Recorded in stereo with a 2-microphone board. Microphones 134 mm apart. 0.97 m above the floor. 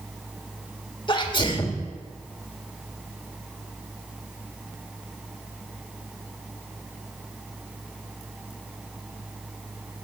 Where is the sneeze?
35° left (ahead or behind), 1.9 m.